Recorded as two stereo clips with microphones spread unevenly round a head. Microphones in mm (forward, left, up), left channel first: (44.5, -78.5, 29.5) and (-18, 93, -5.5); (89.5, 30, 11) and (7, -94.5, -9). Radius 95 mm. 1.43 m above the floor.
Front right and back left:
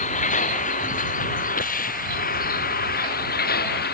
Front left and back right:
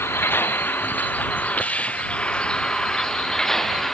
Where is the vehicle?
20° right; by 3.9 s 30° right.